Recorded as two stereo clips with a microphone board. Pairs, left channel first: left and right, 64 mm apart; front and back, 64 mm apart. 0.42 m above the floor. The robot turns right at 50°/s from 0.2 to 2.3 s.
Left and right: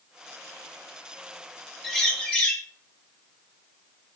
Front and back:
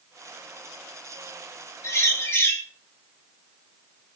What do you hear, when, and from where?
1.8 s a bird: straight ahead, 1.1 m; by 2.6 s 25° left, 1.1 m